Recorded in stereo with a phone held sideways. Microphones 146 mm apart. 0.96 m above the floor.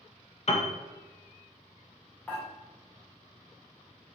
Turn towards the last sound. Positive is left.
turn(degrees=10)  # may be behind; listen again after turning